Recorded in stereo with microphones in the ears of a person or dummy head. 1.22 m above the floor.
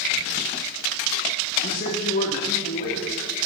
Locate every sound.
1.6 s a man speaking: 50° left (ahead or behind), 2.5 m